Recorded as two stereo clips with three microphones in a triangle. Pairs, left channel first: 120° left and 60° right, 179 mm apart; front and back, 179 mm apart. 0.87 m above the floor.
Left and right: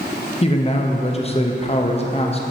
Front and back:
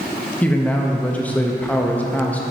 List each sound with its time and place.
0.4 s a man speaking: 80° left, 0.6 m